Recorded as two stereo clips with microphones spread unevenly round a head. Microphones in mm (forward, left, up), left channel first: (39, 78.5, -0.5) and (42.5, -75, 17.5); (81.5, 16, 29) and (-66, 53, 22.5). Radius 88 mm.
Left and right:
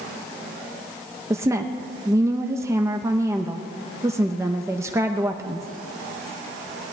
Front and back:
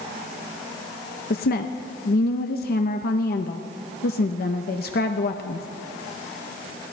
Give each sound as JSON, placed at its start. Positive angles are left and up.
{"t": 1.3, "sound": "a woman speaking", "azimuth_deg": -15, "distance_m": 0.6}